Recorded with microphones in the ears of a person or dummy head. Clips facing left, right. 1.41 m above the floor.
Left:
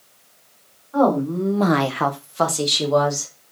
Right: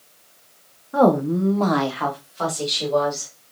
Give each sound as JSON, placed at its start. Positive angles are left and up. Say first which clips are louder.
{"t": 0.9, "sound": "a woman speaking", "louder": "right 1 dB", "side_deg": -30, "distance_m": 0.8}